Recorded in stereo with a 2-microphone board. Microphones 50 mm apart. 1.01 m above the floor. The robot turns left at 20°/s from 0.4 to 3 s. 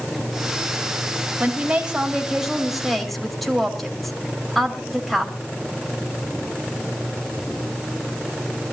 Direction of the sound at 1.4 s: 150° right.